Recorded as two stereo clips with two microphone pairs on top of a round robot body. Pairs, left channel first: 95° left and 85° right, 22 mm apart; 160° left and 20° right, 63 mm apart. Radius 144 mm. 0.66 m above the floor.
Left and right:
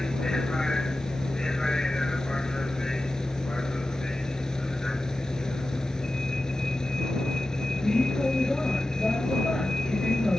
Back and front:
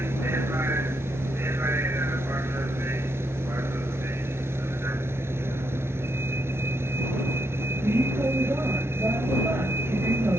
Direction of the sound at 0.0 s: 30° left.